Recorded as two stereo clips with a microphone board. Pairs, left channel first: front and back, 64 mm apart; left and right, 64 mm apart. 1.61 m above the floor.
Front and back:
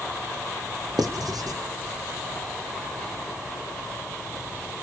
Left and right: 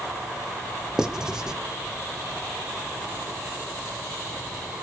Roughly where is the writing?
Behind.